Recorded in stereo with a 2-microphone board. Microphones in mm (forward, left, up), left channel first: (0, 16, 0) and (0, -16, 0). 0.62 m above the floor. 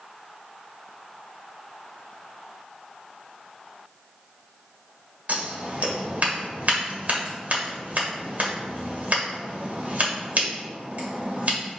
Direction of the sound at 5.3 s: 55° right (ahead or behind).